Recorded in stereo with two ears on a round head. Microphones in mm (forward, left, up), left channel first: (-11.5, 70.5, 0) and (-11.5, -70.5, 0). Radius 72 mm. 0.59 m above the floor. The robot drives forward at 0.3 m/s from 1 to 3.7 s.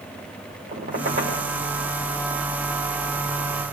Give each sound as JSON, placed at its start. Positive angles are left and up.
{"t": 0.7, "sound": "a squeak", "side_deg": -55, "distance_m": 8.0}